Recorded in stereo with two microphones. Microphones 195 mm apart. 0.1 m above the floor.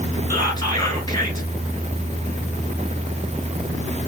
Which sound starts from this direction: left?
Whispering, at 0.3 s.